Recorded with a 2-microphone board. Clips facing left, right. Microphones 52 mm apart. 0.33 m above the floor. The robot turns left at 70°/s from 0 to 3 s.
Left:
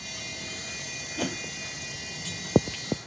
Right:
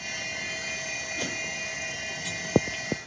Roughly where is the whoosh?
Left.